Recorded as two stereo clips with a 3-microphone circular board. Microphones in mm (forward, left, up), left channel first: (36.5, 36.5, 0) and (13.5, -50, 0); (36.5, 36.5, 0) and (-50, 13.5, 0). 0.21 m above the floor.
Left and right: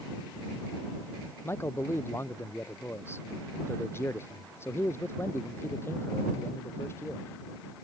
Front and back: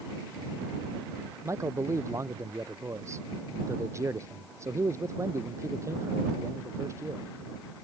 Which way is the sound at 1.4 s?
135° left.